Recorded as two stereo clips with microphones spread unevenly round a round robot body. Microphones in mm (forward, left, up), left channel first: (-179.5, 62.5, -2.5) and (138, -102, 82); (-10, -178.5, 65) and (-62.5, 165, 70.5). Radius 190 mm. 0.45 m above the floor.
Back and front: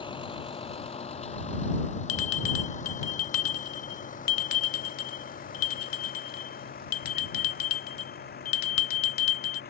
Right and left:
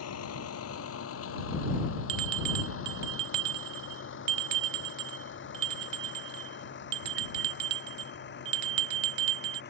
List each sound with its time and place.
0.0 s a vehicle: 130° right; by 9.7 s 145° right
2.1 s a bell: 100° left